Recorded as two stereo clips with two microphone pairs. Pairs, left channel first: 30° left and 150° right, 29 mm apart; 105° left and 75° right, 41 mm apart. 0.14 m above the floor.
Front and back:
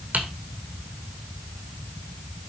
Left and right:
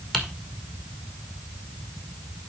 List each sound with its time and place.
0.1 s typing on a keyboard: 170° right, 1.9 m